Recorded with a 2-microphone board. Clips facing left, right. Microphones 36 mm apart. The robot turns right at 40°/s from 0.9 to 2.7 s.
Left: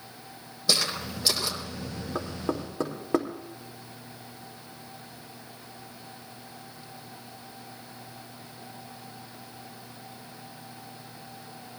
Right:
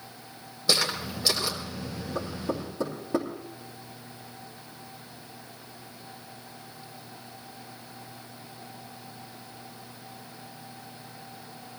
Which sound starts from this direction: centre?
Footsteps, at 0.7 s.